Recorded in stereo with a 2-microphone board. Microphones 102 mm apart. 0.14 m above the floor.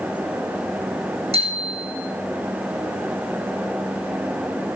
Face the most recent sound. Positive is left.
turn(degrees=-80)